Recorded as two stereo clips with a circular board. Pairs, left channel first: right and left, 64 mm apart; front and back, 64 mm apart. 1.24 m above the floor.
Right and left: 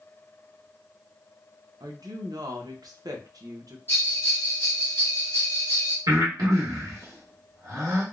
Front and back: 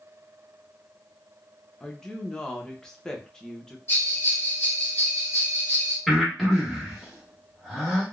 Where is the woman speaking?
80° left, 0.7 m.